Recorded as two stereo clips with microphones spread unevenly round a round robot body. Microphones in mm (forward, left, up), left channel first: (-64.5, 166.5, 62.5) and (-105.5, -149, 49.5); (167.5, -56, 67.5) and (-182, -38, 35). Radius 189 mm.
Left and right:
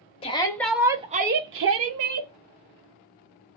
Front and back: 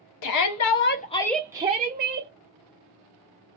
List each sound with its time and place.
0.2 s a shout: 10° left, 0.6 m; by 2.3 s 130° right, 0.8 m